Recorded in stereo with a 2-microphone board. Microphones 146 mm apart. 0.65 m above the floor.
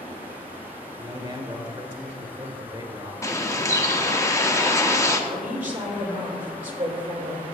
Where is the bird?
20° left (ahead or behind), 0.8 m.